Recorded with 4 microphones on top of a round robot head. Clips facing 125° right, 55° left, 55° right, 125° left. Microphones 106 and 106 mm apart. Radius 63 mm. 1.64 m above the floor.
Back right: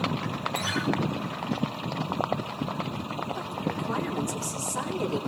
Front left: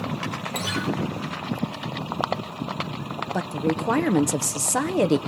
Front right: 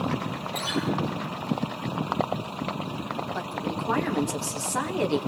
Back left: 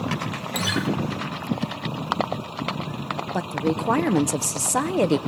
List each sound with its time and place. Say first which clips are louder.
0.5 s a guitar: front left 1 dB, back left 3 dB; 120° left, 1.7 m
3.3 s a woman speaking: front left 6 dB, back left 6 dB; 75° left, 0.9 m